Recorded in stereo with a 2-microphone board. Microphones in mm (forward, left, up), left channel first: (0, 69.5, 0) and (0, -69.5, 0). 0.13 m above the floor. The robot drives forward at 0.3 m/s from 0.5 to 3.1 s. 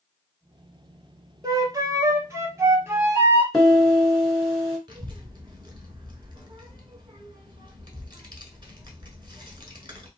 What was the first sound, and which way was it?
A flute, 30° right (ahead or behind).